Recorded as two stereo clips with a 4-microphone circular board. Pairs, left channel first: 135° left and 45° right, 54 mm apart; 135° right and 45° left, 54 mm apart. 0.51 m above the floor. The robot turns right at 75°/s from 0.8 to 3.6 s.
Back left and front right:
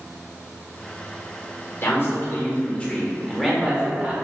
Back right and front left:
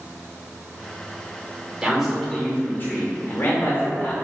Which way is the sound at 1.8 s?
115° left.